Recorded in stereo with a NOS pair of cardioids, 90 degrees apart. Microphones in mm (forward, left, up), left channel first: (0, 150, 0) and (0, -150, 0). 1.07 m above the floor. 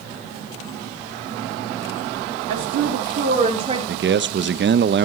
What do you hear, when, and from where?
2.5 s a woman speaking: 65° right, 2.5 m; by 3.8 s 20° right, 3 m
3.9 s a man speaking: 40° right, 0.6 m